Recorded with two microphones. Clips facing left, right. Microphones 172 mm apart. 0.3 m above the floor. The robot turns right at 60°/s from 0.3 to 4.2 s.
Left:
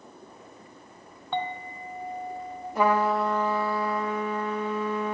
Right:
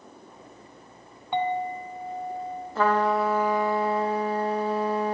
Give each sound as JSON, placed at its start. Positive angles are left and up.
{"t": 1.3, "sound": "a clink", "azimuth_deg": -30, "distance_m": 0.9}
{"t": 2.8, "sound": "a trumpet", "azimuth_deg": 155, "distance_m": 0.8}